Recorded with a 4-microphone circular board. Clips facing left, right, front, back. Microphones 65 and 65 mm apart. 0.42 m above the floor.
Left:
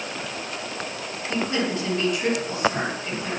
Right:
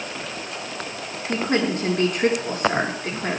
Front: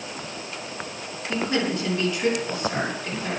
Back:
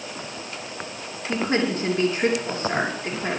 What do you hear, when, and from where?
1.3 s a woman speaking: 125° right, 6.5 m